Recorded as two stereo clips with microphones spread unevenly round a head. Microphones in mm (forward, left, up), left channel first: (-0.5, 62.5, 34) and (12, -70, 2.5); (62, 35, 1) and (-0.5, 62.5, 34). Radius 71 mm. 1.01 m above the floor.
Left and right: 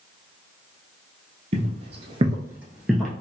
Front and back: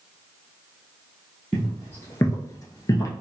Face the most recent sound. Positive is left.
turn(degrees=25)